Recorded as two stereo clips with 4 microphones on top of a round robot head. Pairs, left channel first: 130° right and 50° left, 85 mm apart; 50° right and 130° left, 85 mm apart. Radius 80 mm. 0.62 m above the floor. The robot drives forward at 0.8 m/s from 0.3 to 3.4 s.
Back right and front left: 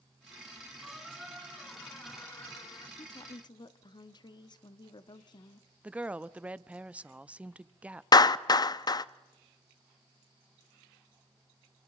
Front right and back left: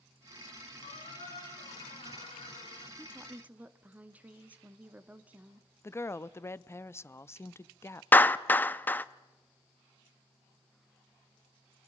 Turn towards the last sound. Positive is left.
turn(degrees=-110)